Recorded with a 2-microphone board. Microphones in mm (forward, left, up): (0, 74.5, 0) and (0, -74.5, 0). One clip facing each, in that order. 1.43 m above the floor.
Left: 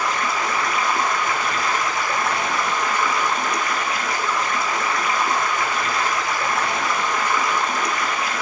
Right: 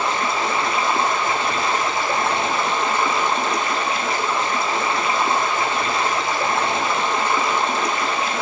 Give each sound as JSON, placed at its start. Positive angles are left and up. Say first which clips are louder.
{"t": 0.0, "sound": "running water", "louder": "right 2 dB", "side_deg": -25, "distance_m": 0.7}